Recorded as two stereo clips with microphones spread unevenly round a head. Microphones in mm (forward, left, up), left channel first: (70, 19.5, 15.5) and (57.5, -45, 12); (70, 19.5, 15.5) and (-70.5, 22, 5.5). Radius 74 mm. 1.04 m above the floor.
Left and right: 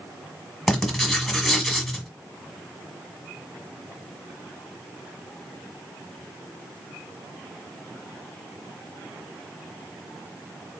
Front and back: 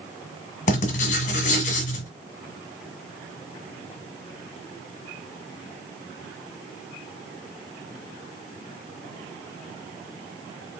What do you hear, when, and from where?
0.7 s writing: 5° right, 1.3 m